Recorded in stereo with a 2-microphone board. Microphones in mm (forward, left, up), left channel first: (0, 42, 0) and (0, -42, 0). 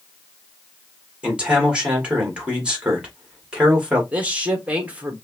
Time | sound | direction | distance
1.2 | a man speaking | 10° right (ahead or behind) | 2.5 m
4.1 | a man speaking | 15° right (ahead or behind) | 1.4 m